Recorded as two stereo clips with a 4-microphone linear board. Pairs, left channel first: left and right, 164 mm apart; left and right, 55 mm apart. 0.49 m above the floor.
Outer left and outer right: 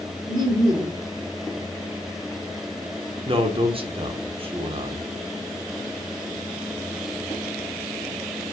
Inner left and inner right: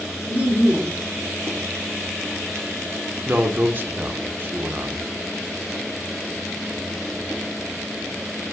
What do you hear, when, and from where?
0.3 s laughter: 30° right (ahead or behind), 1.5 m
3.3 s a man speaking: 35° right (ahead or behind), 0.9 m